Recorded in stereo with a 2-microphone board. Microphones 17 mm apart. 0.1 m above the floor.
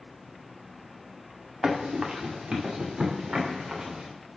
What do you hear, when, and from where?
1.6 s running footsteps: 65° right (ahead or behind), 1.5 m; by 4.1 s 80° right, 2.5 m